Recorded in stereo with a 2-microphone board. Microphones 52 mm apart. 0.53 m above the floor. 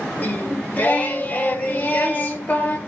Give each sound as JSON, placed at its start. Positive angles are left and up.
{"t": 0.2, "sound": "singing", "side_deg": 30, "distance_m": 1.3}